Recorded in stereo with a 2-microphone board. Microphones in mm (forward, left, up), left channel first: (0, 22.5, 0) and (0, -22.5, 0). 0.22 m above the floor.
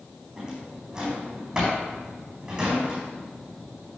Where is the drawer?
20° right (ahead or behind), 4.5 m.